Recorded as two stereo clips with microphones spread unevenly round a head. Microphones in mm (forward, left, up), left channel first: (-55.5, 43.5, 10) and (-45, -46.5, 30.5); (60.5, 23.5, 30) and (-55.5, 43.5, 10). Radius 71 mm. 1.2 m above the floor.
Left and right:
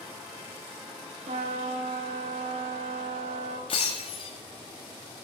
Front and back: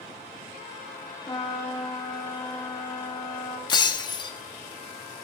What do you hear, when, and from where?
1.3 s a trumpet: 75° right, 1.7 m
3.7 s breaking glass: 40° left, 1.4 m